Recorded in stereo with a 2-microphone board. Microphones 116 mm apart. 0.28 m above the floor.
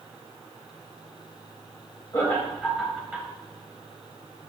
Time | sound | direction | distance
2.1 | laughter | 25° left (ahead or behind) | 1.1 m